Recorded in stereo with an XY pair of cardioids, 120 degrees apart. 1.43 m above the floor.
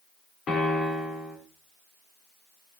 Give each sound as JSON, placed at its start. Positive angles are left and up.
{"t": 0.5, "sound": "a piano", "azimuth_deg": 50, "distance_m": 4.5}